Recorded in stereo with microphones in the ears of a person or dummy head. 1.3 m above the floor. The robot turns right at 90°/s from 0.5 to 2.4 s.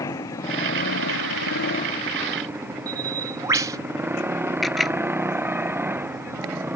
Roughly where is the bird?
Centre.